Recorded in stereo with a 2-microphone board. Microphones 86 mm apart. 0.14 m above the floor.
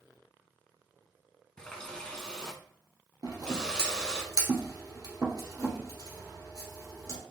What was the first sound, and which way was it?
A running tap, 10° left (ahead or behind).